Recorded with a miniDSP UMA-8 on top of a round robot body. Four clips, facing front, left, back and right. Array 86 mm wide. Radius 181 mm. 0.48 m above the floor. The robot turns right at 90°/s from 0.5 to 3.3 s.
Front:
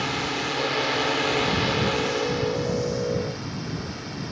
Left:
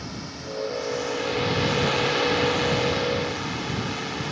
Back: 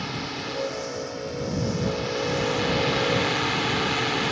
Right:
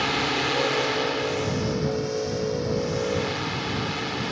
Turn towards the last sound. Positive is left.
turn(degrees=-175)